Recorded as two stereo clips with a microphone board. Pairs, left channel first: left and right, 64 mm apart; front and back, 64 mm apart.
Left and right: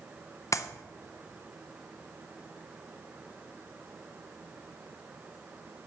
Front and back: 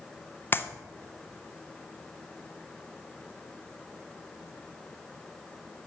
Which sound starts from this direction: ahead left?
A clap, at 0.5 s.